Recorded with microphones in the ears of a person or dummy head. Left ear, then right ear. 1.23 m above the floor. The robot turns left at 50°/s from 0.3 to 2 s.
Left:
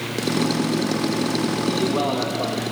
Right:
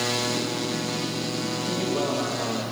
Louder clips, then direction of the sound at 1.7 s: Left 3 dB; 10° left (ahead or behind).